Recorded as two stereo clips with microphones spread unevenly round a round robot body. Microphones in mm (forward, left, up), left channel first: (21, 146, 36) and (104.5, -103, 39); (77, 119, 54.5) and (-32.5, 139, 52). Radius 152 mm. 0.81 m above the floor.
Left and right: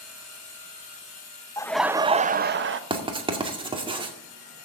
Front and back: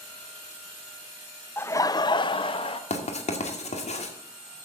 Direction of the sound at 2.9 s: Straight ahead.